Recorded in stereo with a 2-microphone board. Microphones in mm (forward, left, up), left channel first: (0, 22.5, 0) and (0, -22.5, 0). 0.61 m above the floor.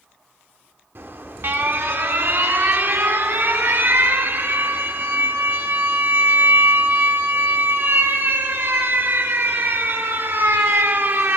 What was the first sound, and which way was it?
An alarm, 60° right (ahead or behind).